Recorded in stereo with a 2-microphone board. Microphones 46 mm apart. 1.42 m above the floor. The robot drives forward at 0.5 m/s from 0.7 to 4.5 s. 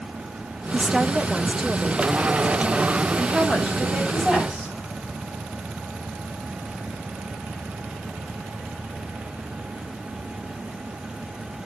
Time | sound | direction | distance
0.7 | a woman speaking | 20° right (ahead or behind) | 0.5 m
3.2 | a woman speaking | 5° right (ahead or behind) | 7 m